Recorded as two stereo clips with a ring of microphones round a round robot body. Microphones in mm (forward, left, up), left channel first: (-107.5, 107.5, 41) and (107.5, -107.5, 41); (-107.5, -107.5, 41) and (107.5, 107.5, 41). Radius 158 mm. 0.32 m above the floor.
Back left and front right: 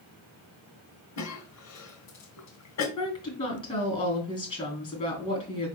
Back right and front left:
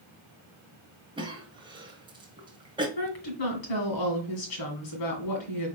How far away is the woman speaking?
About 3.5 m.